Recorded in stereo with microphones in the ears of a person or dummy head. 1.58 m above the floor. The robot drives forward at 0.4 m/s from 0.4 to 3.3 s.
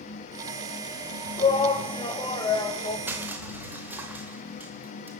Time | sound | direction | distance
1.4 | a shout | 30° left (ahead or behind) | 2 m
3.1 | crushing | 10° right (ahead or behind) | 2.5 m